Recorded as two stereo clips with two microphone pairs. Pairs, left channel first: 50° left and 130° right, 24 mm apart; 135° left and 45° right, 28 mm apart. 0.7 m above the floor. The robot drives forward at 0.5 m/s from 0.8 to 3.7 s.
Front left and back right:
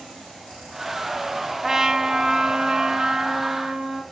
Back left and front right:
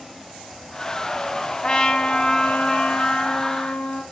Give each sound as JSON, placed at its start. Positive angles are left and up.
{"t": 1.6, "sound": "a trumpet", "azimuth_deg": 175, "distance_m": 0.6}